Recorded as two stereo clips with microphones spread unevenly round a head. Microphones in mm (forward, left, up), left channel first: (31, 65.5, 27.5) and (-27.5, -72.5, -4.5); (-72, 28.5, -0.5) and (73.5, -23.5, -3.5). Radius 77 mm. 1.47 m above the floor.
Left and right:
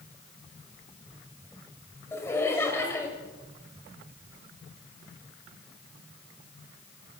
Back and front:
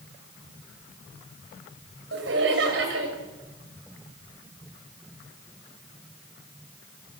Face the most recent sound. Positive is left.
turn(degrees=-5)